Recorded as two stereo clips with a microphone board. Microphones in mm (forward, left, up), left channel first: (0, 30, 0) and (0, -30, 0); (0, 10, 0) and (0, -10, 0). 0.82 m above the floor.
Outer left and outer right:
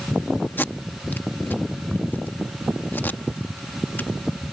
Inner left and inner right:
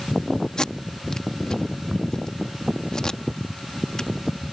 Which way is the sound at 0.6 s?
35° left (ahead or behind).